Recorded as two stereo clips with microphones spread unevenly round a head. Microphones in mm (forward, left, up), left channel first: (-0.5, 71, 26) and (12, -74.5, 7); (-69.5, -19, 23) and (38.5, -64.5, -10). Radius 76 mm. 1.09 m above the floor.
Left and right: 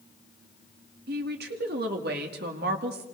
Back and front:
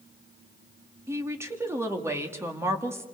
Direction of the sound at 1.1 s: 90° right.